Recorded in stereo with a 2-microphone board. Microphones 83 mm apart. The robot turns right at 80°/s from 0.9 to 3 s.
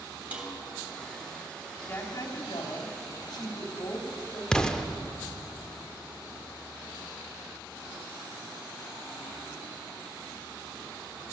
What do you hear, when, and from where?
0.3 s a snare drum: 20° right (ahead or behind), 2.5 m
1.9 s a woman speaking: 25° left, 2 m; by 4.4 s 115° left, 2 m
4.5 s an explosion: 10° left (ahead or behind), 0.7 m